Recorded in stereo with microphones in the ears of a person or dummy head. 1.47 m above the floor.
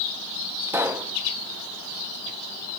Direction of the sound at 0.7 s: 10° right (ahead or behind).